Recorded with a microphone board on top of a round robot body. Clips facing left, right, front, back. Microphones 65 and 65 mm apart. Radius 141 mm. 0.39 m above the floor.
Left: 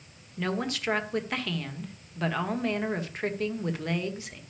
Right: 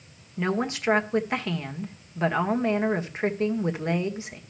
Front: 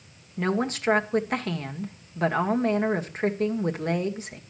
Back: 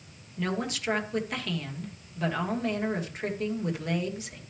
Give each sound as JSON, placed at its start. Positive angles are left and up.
{"t": 0.4, "sound": "a woman speaking", "azimuth_deg": -30, "distance_m": 1.8}